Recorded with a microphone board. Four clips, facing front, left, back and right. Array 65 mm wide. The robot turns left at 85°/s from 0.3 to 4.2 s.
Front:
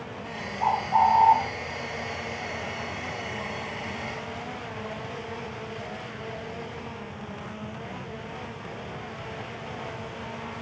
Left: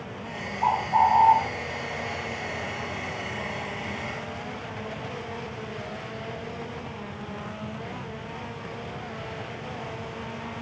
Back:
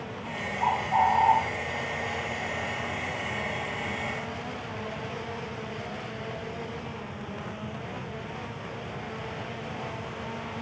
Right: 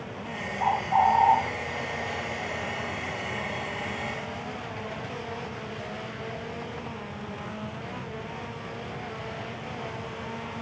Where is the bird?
95° right, 6.5 m; by 1.4 s 160° right, 6.5 m.